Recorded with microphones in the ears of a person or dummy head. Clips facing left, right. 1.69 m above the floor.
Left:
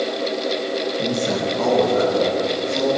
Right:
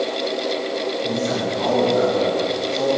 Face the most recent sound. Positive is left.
turn(degrees=60)  # may be behind; listen again after turning